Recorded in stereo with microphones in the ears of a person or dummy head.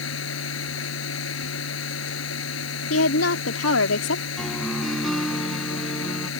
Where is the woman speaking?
85° left.